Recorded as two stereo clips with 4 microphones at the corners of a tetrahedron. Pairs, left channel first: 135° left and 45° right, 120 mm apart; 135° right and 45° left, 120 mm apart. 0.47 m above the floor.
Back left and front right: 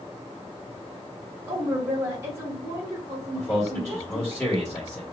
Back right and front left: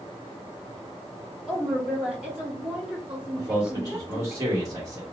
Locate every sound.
1.5 s a woman speaking: 30° right, 0.7 m
3.4 s a man speaking: 80° left, 1.5 m